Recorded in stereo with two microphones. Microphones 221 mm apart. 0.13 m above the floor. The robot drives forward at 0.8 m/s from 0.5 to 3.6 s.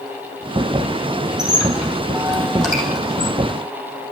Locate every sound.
1.4 s a squeak: 5° right (ahead or behind), 3.5 m; by 3.3 s centre (ahead or behind), 5 m